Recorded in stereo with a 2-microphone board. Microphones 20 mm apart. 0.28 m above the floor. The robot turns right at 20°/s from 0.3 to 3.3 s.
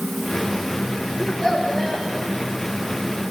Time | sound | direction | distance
1.2 | a child speaking | 40° left (ahead or behind) | 7.5 m